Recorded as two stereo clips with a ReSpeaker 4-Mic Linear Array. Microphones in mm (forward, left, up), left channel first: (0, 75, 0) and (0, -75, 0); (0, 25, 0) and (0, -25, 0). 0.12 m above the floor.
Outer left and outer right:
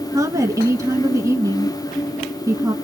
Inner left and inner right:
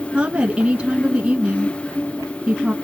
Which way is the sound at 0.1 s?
20° right (ahead or behind).